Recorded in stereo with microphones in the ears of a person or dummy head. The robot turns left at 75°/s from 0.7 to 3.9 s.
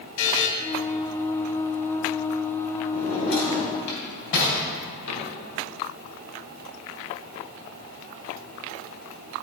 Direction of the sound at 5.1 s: 75° left (ahead or behind).